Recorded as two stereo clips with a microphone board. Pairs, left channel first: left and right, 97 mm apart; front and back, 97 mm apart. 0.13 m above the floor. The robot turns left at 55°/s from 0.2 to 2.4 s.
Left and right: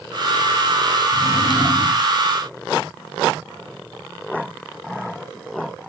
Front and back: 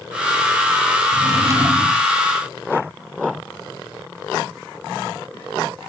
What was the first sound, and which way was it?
A drawer, 145° left.